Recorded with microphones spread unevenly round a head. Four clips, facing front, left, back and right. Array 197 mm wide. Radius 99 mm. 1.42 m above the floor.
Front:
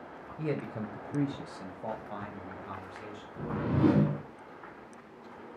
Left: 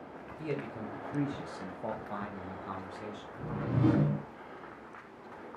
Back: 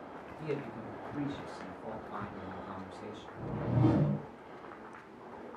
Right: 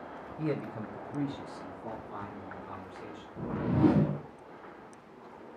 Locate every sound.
0.4 s a man speaking: 30° right, 0.6 m; by 3.3 s 80° left, 1.4 m
3.4 s a whoosh: 35° right, 0.6 m